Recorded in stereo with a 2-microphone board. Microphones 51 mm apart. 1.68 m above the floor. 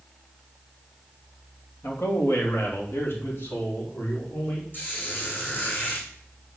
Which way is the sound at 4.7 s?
45° left (ahead or behind).